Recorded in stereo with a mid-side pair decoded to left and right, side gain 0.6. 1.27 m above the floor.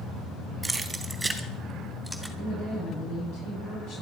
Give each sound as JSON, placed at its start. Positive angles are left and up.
{"t": 0.6, "sound": "keys jangling", "azimuth_deg": -15, "distance_m": 2.5}
{"t": 2.4, "sound": "a woman speaking", "azimuth_deg": 60, "distance_m": 9.0}